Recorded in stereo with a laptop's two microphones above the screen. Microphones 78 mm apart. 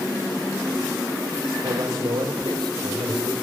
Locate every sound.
1.6 s a man speaking: 55° right (ahead or behind), 2.5 m